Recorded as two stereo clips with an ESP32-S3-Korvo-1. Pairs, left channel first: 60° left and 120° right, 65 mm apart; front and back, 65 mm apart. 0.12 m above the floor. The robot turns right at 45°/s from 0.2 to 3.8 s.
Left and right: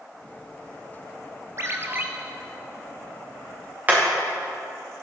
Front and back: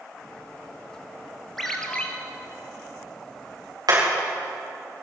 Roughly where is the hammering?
Behind.